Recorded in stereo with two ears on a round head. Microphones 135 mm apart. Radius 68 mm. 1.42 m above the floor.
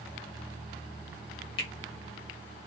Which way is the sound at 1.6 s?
75° left (ahead or behind).